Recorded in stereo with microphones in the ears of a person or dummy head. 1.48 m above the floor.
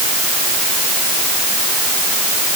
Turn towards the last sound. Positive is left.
No sound to turn to.